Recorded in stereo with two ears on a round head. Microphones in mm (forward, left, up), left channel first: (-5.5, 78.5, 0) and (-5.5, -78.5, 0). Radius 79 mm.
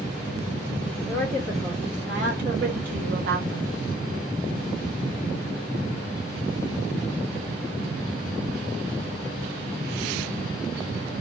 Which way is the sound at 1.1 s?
45° right (ahead or behind).